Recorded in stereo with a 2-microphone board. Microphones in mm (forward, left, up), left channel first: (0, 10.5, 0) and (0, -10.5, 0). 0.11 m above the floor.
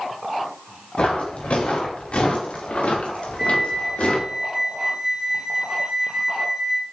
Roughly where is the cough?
I don't hear a cough.